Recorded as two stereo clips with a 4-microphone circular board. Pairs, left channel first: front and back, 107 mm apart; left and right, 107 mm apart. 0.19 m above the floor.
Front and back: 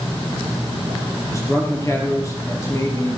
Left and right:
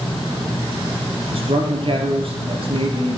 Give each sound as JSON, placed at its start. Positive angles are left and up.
{"t": 1.3, "sound": "a man speaking", "azimuth_deg": -60, "distance_m": 4.0}